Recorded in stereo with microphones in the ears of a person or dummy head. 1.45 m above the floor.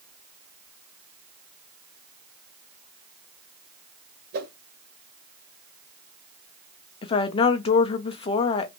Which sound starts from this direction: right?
A whoosh, at 4.3 s.